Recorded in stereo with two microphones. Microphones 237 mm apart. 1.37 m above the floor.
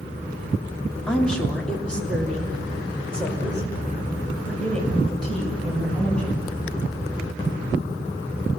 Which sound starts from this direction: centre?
A woman speaking, at 1.1 s.